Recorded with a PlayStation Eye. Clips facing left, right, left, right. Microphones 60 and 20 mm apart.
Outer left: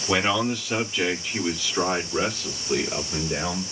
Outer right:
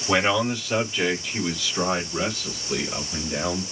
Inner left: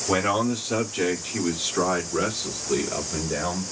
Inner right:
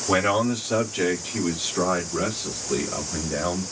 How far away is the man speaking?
About 1.4 m.